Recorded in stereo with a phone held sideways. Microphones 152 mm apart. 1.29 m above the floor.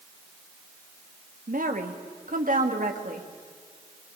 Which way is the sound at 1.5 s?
65° right (ahead or behind).